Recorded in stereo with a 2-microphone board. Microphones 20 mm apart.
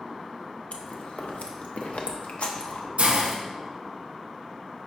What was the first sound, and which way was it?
Chewing, 70° left (ahead or behind).